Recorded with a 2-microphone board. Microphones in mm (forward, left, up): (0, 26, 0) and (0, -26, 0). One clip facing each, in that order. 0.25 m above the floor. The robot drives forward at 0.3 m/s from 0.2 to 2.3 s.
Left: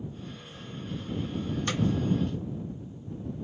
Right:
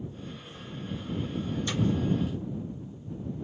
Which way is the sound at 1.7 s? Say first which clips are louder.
Left 2 dB; 55° left (ahead or behind).